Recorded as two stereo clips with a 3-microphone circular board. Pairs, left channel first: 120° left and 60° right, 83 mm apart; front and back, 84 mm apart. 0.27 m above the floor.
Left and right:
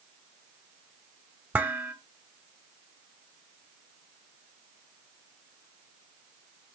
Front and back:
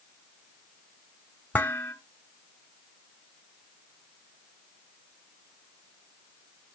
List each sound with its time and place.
1.5 s dishes clattering: 35° right, 0.7 m